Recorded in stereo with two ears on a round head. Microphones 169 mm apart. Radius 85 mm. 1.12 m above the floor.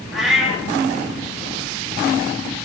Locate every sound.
0.1 s a cat meowing: centre (ahead or behind), 0.6 m